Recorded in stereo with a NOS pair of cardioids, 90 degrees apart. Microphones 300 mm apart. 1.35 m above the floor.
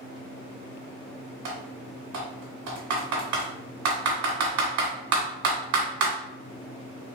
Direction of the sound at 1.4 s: 65° right.